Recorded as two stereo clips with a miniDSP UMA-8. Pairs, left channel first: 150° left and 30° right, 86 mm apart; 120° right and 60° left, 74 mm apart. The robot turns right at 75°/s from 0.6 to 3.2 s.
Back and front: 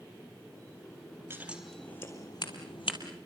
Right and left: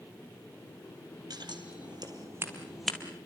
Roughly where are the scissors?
Ahead left.